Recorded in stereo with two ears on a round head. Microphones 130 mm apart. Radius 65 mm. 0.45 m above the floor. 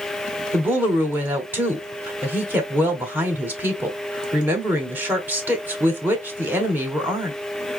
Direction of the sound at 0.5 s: 15° right (ahead or behind).